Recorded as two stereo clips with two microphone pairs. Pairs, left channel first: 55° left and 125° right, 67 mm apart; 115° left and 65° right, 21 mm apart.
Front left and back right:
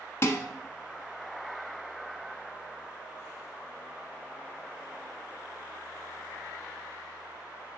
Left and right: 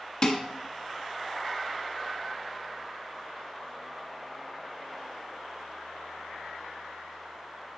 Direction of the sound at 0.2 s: 90° left.